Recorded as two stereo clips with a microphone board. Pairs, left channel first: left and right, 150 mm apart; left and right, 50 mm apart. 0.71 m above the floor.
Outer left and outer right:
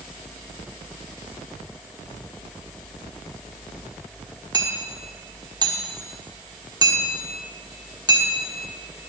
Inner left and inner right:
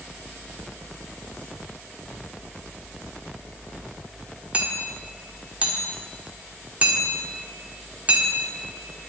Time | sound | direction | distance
4.5 | hammering | 25° right (ahead or behind) | 1.4 m